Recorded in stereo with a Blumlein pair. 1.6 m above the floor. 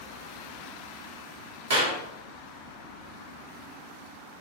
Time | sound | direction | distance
1.7 | a clap | 55° right | 1.2 m